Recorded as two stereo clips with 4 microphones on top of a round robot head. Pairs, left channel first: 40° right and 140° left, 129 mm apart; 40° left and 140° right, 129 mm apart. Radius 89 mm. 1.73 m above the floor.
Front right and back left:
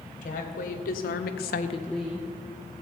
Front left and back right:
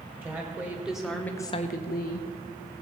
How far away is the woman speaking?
About 2 m.